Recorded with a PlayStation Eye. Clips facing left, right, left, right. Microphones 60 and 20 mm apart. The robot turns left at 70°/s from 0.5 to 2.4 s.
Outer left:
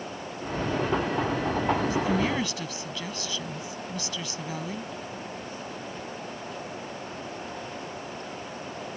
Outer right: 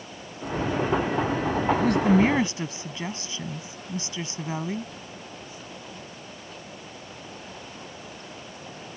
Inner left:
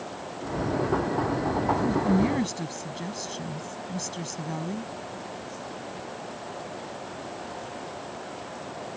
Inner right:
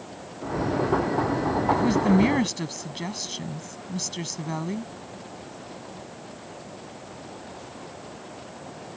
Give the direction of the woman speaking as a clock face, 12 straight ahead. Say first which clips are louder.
Outer right 8 dB, inner right 4 dB; 4 o'clock.